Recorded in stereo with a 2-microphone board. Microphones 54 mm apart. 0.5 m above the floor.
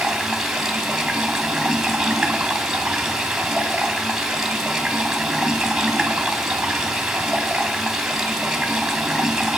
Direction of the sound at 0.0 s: 10° right (ahead or behind).